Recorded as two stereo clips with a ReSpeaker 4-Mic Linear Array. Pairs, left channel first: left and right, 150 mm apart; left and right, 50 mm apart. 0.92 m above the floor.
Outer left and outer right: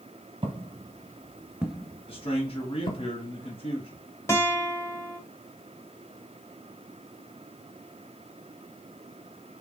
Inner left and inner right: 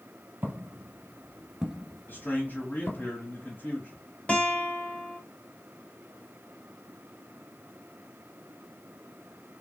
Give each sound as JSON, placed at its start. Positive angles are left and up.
{"t": 0.4, "sound": "footsteps", "side_deg": -40, "distance_m": 1.4}
{"t": 2.1, "sound": "a man speaking", "side_deg": 40, "distance_m": 1.3}
{"t": 4.3, "sound": "a guitar", "side_deg": 20, "distance_m": 1.0}